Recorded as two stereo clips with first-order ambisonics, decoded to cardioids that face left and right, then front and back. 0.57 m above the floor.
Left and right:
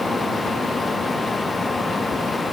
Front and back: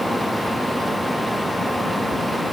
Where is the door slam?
I don't hear a door slam.